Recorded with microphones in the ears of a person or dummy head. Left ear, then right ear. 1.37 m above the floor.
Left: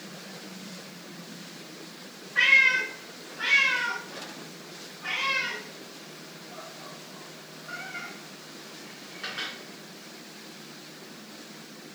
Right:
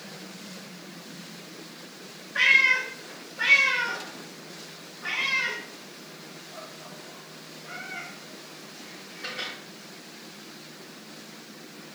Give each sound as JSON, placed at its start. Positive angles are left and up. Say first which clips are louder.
{"t": 2.4, "sound": "a cat meowing", "louder": "even", "side_deg": -20, "distance_m": 4.5}